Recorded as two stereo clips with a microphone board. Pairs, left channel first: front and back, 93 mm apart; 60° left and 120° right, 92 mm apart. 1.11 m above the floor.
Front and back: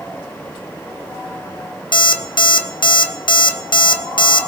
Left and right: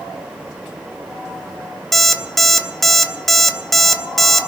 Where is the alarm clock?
25° right, 0.8 m.